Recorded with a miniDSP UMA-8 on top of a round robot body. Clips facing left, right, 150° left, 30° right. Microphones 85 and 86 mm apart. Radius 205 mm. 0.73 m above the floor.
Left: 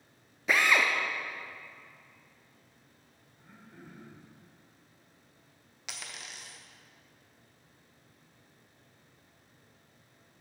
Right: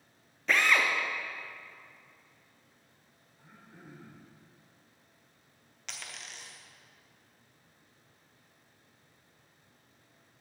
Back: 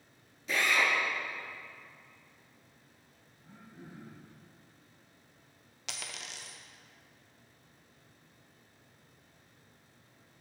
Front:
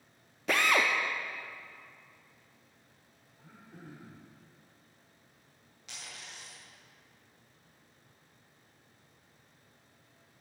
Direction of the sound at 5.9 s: 175° left.